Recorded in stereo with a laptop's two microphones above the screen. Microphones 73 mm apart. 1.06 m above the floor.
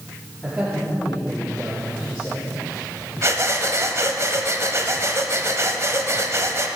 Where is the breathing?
40° right (ahead or behind), 1.1 m.